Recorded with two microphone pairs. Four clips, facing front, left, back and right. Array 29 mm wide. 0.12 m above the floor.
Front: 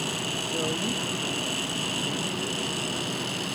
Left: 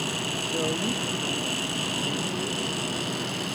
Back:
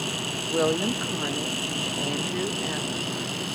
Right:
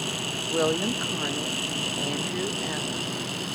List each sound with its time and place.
0.5 s a woman speaking: 135° right